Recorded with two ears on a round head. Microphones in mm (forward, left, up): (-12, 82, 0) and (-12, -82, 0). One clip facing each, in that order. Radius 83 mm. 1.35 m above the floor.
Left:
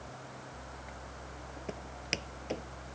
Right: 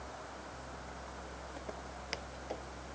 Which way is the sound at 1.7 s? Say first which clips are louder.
Left 6 dB; 30° left (ahead or behind).